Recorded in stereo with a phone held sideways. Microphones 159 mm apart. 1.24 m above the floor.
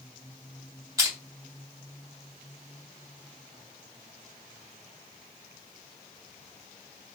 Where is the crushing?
20° right (ahead or behind), 2 m.